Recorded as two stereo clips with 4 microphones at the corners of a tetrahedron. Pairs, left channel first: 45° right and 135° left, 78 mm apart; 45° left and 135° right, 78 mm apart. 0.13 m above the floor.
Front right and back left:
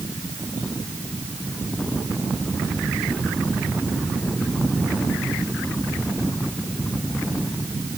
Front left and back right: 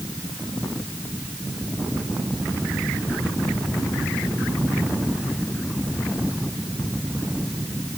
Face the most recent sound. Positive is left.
No sound to turn to.